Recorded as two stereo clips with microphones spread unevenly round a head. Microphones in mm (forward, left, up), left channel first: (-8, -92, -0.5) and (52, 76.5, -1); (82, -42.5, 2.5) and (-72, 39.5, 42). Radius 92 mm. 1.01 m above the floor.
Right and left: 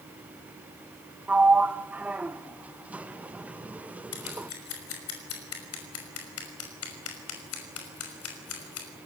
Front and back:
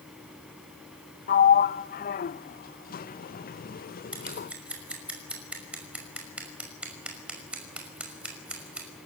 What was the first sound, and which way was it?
A sliding door, 10° right.